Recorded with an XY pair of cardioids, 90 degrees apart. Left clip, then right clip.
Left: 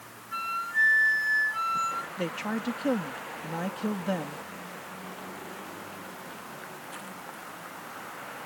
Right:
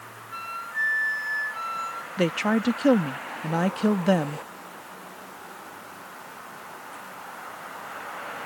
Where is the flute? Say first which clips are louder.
Left 3 dB; 20° left.